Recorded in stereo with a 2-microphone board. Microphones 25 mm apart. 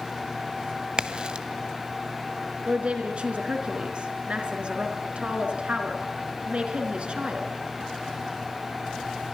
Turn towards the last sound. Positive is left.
turn(degrees=-50)  # may be behind; listen again after turning